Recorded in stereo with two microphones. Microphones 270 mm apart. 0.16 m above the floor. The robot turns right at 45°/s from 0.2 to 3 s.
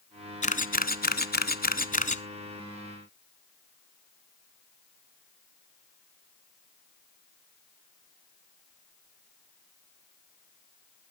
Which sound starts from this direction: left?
A camera shutter, at 0.4 s.